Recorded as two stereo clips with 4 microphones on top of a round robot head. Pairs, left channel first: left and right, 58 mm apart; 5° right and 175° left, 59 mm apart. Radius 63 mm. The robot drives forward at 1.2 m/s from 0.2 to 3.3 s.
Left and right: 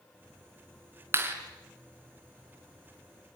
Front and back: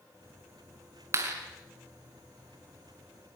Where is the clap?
135° right, 4.5 m; by 1.4 s 140° right, 4.5 m.